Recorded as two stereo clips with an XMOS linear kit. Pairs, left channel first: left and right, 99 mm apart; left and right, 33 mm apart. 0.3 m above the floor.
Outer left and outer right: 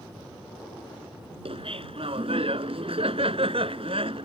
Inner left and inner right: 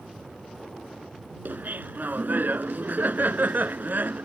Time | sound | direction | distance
1.4 | laughter | 70° right (ahead or behind) | ?